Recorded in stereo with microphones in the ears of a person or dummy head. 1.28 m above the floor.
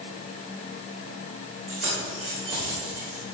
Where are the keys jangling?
55° right (ahead or behind), 3 m; by 3.4 s 10° right (ahead or behind), 3 m.